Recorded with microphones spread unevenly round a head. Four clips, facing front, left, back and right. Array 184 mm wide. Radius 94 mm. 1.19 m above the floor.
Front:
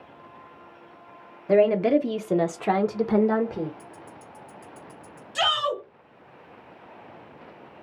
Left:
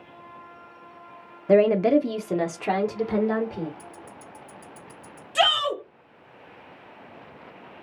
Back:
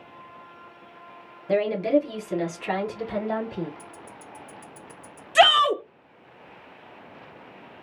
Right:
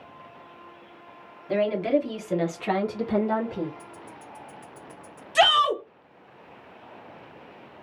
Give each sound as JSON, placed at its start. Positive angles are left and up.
{"t": 1.5, "sound": "a woman speaking", "azimuth_deg": 70, "distance_m": 0.6}
{"t": 3.8, "sound": "ticking", "azimuth_deg": 125, "distance_m": 1.1}
{"t": 5.3, "sound": "a shout", "azimuth_deg": -160, "distance_m": 1.0}